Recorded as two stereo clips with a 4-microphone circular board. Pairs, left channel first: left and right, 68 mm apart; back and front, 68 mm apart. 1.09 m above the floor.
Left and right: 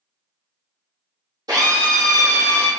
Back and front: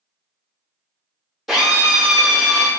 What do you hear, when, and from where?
1.5 s a drill: 90° right, 1.5 m